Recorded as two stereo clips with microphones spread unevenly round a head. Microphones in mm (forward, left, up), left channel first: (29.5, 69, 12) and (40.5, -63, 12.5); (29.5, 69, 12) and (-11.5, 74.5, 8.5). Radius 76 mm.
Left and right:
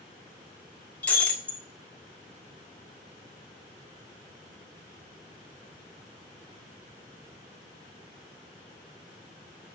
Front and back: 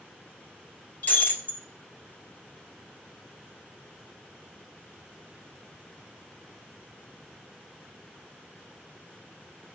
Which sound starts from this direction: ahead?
Breaking glass, at 1.0 s.